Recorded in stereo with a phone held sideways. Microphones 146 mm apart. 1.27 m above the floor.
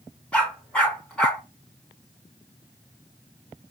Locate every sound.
0.3 s a dog barking: 10° left (ahead or behind), 5 m